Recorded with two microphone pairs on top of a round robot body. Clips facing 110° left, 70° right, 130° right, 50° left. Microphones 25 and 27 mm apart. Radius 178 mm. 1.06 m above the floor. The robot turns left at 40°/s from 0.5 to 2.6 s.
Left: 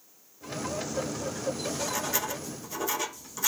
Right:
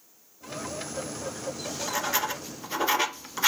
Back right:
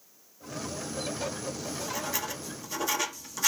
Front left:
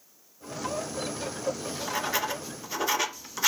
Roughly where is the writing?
Ahead.